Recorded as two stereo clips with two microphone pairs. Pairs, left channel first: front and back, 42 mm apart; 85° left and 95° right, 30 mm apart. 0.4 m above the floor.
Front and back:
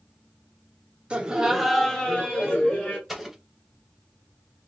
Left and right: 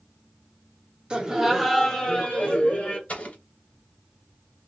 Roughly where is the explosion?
Left.